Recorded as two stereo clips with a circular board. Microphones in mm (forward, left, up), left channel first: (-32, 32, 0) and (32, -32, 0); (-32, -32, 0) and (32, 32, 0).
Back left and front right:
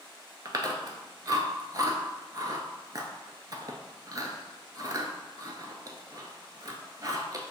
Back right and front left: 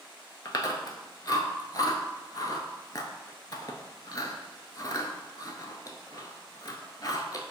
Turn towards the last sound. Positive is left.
turn(degrees=-90)